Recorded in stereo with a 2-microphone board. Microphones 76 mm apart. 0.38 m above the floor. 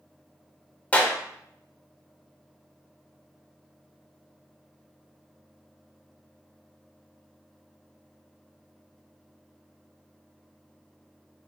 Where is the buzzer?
I don't hear a buzzer.